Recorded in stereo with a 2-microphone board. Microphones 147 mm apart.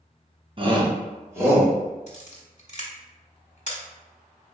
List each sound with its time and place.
0.6 s a shout: 35° right (ahead or behind), 0.9 m; by 1.7 s 10° right (ahead or behind), 1.5 m
2.1 s a camera shutter: 55° left (ahead or behind), 1.3 m